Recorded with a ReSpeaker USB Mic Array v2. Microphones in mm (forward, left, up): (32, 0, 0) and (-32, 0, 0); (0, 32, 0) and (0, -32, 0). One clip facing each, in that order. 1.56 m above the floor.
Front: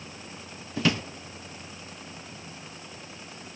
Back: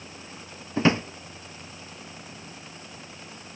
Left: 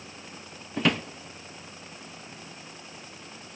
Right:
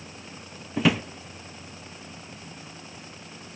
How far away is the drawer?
About 0.8 m.